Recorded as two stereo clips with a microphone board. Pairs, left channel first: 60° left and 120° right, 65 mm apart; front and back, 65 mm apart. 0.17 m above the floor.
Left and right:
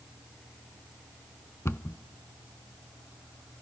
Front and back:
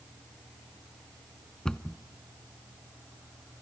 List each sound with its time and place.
1.6 s a cupboard door: 70° left, 0.6 m